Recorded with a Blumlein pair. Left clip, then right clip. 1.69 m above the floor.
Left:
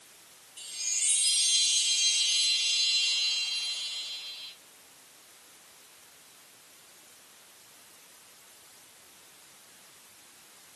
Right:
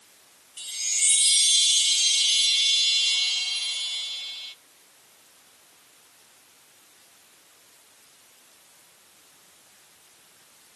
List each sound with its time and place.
0.6 s a chime: 70° right, 0.6 m